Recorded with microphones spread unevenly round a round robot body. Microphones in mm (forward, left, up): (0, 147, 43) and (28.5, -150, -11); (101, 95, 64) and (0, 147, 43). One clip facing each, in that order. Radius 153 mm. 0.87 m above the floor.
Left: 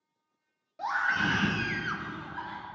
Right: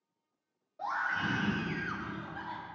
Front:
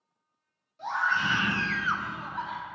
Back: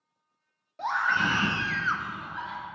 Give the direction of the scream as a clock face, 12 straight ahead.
7 o'clock.